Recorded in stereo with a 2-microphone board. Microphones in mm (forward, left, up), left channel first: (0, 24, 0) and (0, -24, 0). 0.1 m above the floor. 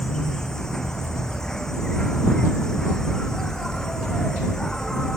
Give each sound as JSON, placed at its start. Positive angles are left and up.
{"t": 0.0, "sound": "an insect", "side_deg": 10}